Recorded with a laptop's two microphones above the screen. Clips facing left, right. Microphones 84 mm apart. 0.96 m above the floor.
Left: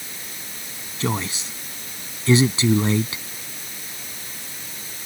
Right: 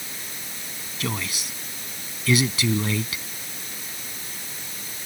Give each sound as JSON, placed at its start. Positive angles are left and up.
{"t": 1.0, "sound": "a man speaking", "side_deg": 30}